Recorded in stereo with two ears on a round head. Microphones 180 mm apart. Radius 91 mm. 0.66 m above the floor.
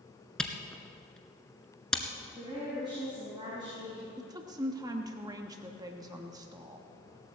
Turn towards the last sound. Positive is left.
turn(degrees=-20)  # may be behind; listen again after turning